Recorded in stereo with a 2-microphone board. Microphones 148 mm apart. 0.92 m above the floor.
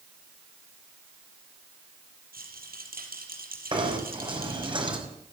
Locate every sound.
2.3 s a rattle: 80° right, 5 m
3.7 s knocking: 35° right (ahead or behind), 5.5 m